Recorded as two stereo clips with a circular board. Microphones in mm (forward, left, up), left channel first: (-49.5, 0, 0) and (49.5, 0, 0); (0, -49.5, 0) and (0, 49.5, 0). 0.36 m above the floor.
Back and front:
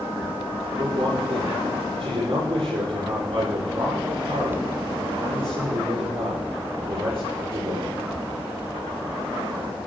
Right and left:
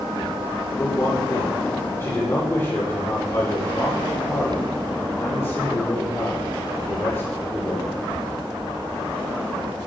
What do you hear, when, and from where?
0.8 s a man speaking: 25° right, 9.5 m